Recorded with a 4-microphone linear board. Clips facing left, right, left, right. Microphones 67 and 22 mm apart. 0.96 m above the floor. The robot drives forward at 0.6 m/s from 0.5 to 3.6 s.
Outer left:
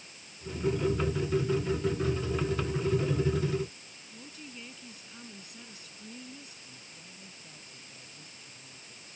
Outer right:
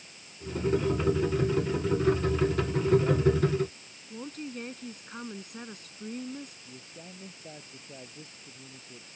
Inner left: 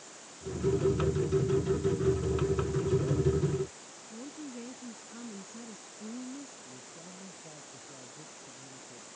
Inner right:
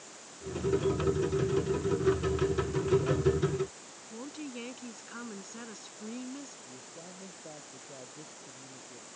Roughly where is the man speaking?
Right.